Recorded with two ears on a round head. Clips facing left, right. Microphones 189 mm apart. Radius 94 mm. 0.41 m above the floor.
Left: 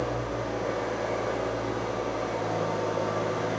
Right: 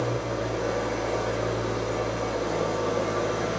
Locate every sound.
0.0 s an engine running: 70° right (ahead or behind), 7.5 m